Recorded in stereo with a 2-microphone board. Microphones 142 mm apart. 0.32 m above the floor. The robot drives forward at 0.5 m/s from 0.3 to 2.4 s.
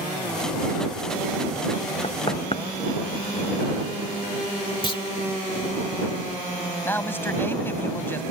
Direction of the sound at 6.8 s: 15° left (ahead or behind).